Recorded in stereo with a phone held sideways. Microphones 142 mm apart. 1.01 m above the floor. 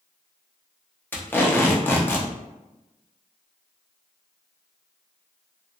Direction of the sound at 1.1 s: 15° left (ahead or behind).